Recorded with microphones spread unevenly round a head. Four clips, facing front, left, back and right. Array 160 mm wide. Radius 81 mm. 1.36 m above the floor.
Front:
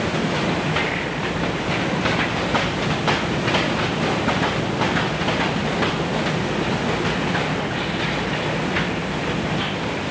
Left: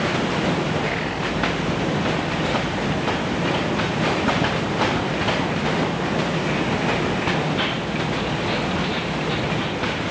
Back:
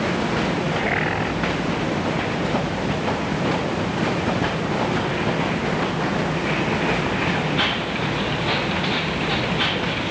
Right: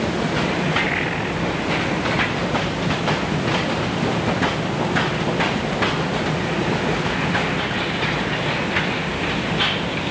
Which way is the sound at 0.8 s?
175° right.